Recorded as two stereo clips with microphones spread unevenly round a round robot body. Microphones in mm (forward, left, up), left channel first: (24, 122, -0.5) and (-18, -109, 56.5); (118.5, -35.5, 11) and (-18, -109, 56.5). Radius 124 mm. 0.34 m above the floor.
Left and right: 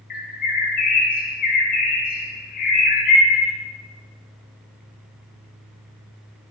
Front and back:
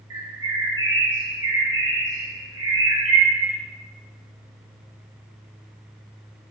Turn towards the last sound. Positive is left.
turn(degrees=135)